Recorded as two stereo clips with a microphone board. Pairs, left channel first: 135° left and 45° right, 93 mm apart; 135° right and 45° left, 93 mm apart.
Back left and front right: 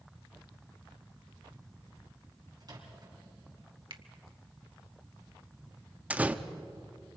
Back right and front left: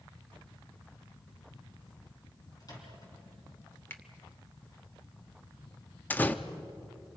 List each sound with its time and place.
2.6 s a microwave: 90° right, 4.5 m
3.9 s a finger snap: 70° right, 1.1 m
6.1 s a door slam: 95° right, 0.7 m